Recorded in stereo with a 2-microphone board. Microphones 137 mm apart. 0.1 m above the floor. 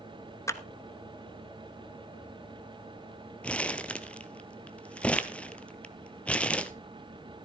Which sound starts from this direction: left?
A clap, at 0.5 s.